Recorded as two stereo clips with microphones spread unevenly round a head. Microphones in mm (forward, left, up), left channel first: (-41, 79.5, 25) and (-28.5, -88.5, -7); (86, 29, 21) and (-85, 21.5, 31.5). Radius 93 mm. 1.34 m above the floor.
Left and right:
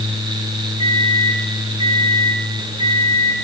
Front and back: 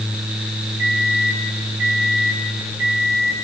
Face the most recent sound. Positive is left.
turn(degrees=-145)